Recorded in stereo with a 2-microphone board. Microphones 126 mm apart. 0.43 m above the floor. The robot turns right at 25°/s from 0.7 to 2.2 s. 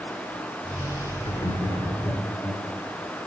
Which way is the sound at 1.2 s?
35° left (ahead or behind).